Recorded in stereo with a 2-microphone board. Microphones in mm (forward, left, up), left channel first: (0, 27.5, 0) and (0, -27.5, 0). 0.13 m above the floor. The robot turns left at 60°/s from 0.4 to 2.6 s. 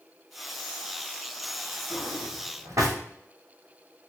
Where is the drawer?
50° right (ahead or behind), 1.6 m; by 3.0 s 80° right, 1.6 m.